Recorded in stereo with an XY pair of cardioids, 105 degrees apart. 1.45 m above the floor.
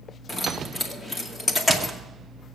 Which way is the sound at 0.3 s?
25° left.